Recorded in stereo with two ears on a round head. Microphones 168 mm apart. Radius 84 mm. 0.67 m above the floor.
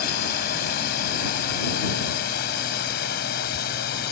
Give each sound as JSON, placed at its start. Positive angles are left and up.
{"t": 0.0, "sound": "a drone", "side_deg": 50}